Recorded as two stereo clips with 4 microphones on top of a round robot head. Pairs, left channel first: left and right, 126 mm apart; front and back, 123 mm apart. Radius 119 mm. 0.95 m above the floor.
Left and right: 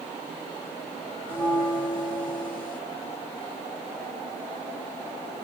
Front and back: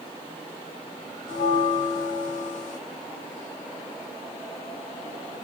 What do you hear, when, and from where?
1.3 s a bell: 10° left, 1.3 m